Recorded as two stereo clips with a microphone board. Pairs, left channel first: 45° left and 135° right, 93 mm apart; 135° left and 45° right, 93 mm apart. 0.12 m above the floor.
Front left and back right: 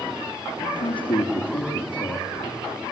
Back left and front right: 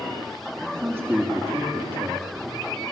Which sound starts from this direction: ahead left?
A man speaking, at 0.6 s.